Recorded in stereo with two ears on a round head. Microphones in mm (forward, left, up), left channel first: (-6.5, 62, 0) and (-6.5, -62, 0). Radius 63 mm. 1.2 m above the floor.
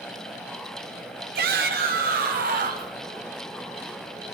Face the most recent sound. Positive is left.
turn(degrees=-60)  # may be behind; listen again after turning